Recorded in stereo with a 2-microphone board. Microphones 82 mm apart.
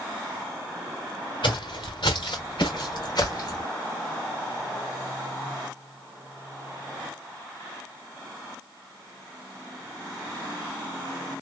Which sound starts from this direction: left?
Footsteps, at 1.4 s.